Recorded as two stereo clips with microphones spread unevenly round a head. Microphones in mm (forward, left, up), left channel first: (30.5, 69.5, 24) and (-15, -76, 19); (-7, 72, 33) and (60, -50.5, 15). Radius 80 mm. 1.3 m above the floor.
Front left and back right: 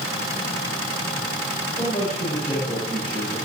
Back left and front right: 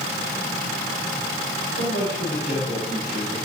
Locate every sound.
1.7 s a man speaking: 130° left, 5.5 m